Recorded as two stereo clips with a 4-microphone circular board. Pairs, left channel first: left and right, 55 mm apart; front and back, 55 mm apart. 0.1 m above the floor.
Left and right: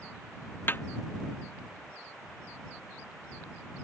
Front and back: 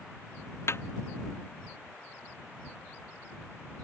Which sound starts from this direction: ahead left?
A snare drum, at 0.7 s.